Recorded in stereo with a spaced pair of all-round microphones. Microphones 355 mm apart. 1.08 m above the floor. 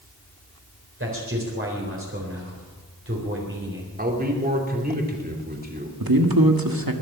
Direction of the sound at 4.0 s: 25° right (ahead or behind).